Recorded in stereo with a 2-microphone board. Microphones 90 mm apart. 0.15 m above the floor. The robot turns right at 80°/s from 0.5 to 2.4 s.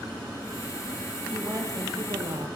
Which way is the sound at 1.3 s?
155° right.